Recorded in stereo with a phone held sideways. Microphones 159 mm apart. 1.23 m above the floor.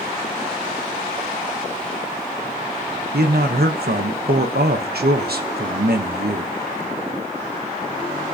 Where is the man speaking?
90° right, 0.9 m.